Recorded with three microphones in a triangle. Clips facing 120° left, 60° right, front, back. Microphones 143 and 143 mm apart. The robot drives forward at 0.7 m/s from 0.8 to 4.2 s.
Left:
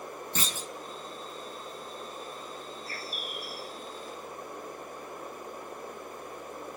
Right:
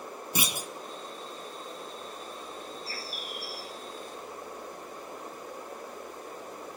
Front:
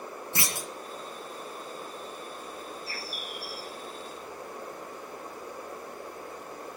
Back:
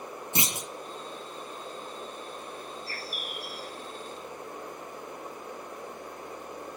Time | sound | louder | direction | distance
0.3 | a clunk | right 4 dB, back 2 dB | 125° right | 0.5 m
2.9 | a bird | even, even | 145° left | 0.9 m